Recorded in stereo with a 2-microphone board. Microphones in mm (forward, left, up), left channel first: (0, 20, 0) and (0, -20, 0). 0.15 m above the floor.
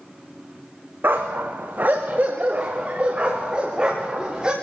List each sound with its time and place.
1.0 s a dog barking: 60° right (ahead or behind), 3 m; by 4.5 s 20° right (ahead or behind), 7 m